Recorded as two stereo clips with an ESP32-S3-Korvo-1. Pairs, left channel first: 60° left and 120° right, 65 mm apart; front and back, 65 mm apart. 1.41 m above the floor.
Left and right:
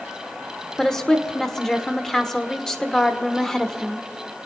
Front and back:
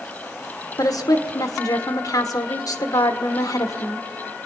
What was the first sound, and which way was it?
A woman speaking, 25° right.